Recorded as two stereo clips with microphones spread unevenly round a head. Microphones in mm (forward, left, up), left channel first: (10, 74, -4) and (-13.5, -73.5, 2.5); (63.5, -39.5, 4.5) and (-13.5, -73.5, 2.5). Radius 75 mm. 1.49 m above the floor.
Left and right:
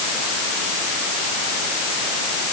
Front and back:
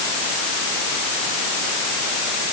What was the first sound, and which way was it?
Only background noise.